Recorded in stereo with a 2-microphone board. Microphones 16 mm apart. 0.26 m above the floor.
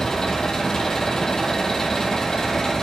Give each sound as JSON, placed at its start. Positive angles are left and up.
{"t": 0.0, "sound": "an engine running", "side_deg": 35, "distance_m": 1.9}